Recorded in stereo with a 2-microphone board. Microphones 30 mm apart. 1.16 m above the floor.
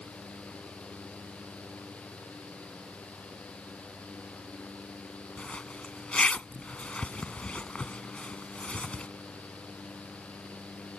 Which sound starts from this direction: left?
A zipper, at 5.4 s.